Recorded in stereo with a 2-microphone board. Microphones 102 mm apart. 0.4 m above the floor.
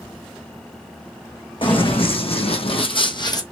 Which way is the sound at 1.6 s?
60° left (ahead or behind).